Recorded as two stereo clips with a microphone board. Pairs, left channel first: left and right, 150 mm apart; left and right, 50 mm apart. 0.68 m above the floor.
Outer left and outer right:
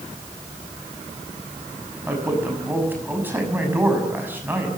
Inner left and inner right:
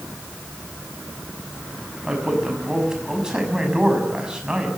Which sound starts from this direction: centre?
A man speaking, at 2.1 s.